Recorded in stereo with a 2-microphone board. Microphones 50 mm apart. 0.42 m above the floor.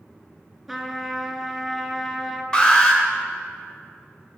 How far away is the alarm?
About 1.9 m.